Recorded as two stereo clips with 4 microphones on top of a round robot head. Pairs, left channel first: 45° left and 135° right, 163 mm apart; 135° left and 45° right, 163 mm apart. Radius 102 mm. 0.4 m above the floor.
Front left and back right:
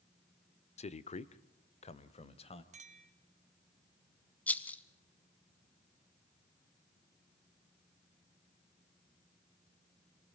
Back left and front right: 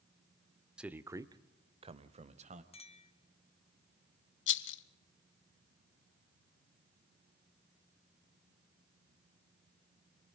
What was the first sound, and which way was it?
A man speaking, 35° left.